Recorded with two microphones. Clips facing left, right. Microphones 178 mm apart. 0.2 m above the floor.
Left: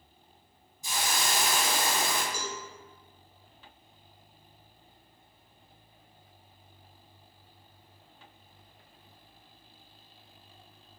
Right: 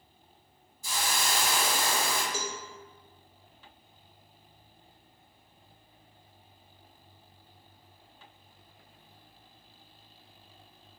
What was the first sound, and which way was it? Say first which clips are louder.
A hiss: even; 20° left (ahead or behind).